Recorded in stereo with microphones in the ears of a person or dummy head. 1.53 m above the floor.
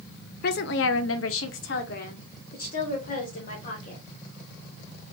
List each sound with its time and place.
0.4 s a woman speaking: 55° left (ahead or behind), 0.6 m; by 4.0 s 40° left (ahead or behind), 1.9 m